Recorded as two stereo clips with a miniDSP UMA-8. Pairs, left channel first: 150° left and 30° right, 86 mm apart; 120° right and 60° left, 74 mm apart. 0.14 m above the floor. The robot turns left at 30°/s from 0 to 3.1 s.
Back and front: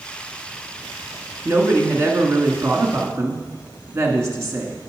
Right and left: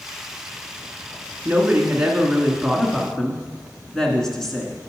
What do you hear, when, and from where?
1.4 s a woman speaking: 10° left, 1.7 m; by 4.8 s 40° right, 1.7 m